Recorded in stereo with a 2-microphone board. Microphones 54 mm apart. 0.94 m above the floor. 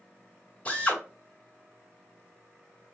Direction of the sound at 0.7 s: 25° left (ahead or behind).